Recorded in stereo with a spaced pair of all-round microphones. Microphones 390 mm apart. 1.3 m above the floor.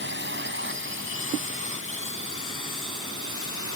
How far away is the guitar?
No guitar in this recording.